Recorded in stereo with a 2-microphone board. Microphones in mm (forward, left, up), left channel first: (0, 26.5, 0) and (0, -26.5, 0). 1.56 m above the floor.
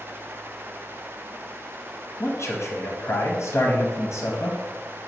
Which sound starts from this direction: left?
A man speaking, at 2.2 s.